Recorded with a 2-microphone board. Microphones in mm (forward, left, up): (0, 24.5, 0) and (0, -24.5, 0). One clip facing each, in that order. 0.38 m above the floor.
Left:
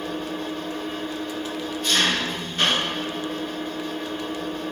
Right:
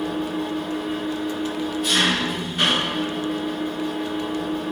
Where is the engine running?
10° right (ahead or behind), 2 m.